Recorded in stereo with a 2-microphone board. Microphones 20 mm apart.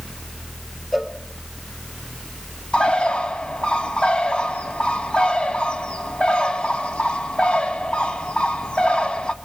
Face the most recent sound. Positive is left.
turn(degrees=65)  # may be behind; listen again after turning